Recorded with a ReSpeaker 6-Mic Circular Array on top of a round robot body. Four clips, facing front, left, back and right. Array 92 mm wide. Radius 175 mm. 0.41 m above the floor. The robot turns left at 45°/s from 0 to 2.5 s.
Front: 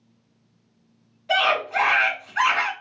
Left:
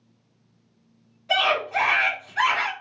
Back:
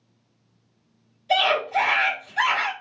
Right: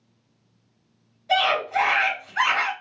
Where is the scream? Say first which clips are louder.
Right 1 dB, back 1 dB; 20° left, 2.0 m; by 2.7 s 35° right, 2.0 m.